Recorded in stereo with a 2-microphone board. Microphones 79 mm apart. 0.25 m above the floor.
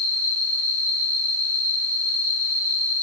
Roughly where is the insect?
Left.